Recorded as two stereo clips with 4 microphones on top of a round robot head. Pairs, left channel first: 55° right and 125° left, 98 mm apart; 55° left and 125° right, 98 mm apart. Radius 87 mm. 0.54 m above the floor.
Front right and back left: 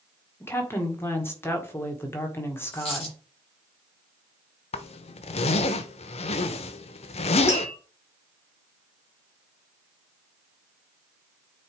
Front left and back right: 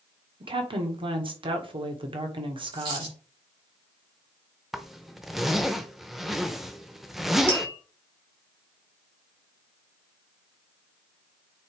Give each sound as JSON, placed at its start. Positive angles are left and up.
{"t": 0.4, "sound": "a woman speaking", "azimuth_deg": -115, "distance_m": 1.7}
{"t": 2.7, "sound": "a dropped coin", "azimuth_deg": -85, "distance_m": 5.0}
{"t": 4.7, "sound": "a zipper", "azimuth_deg": -40, "distance_m": 0.6}
{"t": 7.5, "sound": "tapping", "azimuth_deg": -110, "distance_m": 5.0}